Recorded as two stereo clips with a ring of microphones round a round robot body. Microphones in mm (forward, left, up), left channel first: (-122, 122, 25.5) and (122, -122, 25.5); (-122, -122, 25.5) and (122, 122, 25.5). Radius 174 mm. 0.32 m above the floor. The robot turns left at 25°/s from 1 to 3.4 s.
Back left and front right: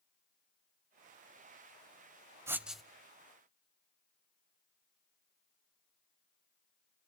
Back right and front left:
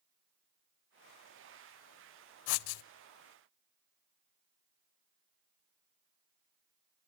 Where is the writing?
125° right, 0.6 m; by 2.8 s 135° right, 0.6 m.